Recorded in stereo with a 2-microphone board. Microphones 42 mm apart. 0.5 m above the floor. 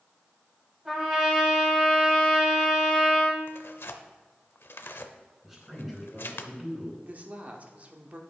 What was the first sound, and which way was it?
A trumpet, 10° right (ahead or behind).